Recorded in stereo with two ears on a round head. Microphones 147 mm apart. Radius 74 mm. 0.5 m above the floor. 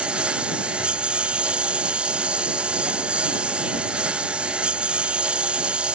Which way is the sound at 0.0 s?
5° right (ahead or behind).